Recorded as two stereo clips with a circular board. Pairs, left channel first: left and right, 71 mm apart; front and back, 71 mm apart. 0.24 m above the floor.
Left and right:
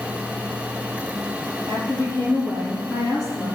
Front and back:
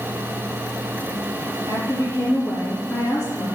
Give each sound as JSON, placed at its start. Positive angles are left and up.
{"t": 1.7, "sound": "a woman speaking", "azimuth_deg": 50, "distance_m": 5.5}